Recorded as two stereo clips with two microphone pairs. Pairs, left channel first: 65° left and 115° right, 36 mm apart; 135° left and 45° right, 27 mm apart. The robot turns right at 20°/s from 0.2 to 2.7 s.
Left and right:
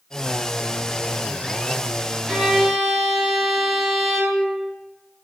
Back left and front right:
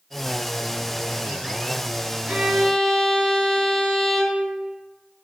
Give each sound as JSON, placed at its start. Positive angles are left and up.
{"t": 2.3, "sound": "a violin", "azimuth_deg": -40, "distance_m": 0.8}